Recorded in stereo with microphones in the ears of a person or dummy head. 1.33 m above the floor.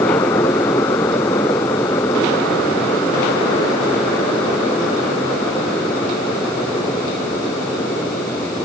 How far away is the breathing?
No breathing in this recording.